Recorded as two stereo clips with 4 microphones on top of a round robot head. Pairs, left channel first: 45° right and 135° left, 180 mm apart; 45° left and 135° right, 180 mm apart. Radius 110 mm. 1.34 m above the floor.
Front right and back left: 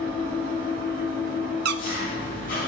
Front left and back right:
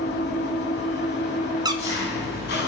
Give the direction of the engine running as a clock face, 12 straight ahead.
12 o'clock.